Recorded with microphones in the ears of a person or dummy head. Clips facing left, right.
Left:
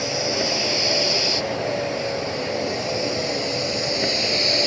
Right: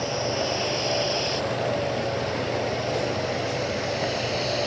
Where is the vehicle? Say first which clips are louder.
Left 2 dB; 25° left (ahead or behind); by 4.7 s 30° left (ahead or behind).